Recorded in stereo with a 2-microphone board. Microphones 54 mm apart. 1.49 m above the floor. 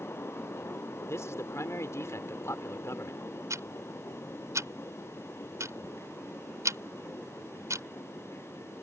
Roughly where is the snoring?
I don't hear snoring.